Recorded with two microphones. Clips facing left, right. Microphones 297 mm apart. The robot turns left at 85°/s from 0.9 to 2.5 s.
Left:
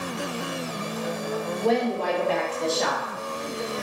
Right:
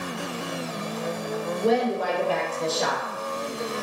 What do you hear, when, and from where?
1.6 s a woman speaking: 20° right (ahead or behind), 0.8 m; by 3.1 s 5° right (ahead or behind), 0.8 m